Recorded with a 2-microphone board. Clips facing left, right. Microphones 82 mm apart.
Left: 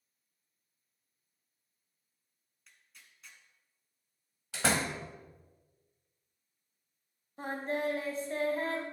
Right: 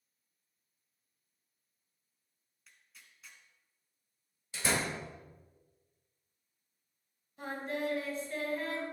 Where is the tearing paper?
Centre (ahead or behind), 1.5 m.